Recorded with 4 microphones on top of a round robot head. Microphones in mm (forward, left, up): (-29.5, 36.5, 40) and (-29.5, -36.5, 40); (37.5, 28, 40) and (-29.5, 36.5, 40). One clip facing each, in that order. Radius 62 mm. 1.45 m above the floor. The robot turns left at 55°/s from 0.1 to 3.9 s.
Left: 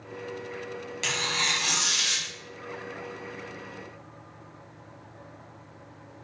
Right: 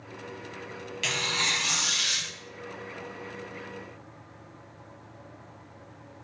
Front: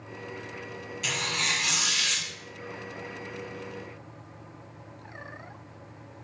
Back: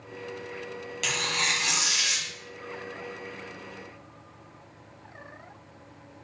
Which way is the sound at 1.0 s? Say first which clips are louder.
Even, back 1 dB; 155° left.